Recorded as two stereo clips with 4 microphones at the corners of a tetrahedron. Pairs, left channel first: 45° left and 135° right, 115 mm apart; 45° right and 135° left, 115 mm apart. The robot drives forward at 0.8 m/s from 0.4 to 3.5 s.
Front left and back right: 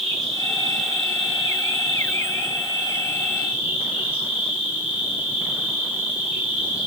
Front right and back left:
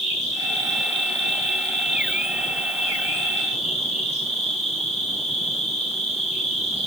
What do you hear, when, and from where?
0.0 s an insect: 45° right, 10 m; by 6.9 s 55° right, 8.5 m